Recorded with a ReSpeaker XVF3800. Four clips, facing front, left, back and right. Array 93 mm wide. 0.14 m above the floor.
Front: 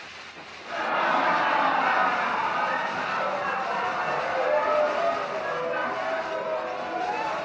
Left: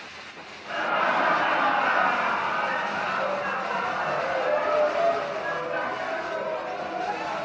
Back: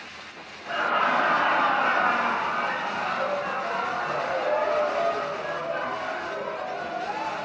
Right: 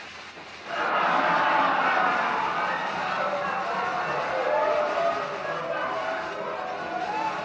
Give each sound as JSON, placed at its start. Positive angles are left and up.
{"t": 0.7, "sound": "laughter", "azimuth_deg": 175, "distance_m": 1.9}